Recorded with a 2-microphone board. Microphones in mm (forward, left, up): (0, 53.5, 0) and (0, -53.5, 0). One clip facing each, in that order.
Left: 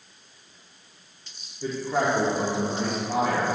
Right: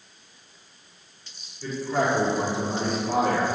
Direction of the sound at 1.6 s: 20° left (ahead or behind).